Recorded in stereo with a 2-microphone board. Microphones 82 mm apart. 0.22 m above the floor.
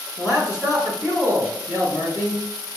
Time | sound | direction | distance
0.2 | a man speaking | 35° left (ahead or behind) | 1.9 m